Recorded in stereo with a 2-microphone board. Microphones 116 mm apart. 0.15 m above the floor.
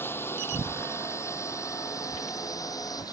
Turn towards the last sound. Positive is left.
turn(degrees=30)  # may be behind; listen again after turning